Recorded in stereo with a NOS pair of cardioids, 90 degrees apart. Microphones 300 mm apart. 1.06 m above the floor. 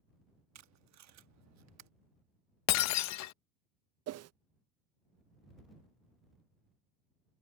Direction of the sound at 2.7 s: 65° left.